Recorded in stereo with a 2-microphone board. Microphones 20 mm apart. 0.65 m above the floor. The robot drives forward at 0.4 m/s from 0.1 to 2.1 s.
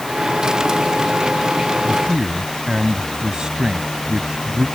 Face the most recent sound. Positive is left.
turn(degrees=-40)  # may be behind; listen again after turning